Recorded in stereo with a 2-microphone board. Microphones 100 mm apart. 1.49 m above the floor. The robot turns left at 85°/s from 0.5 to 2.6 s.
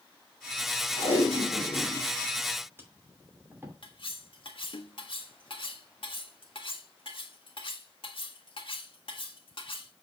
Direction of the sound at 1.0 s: 60° left (ahead or behind).